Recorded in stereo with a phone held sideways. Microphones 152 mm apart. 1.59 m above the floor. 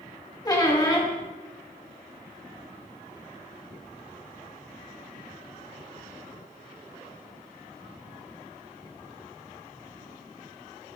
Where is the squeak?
25° left (ahead or behind), 1.4 m.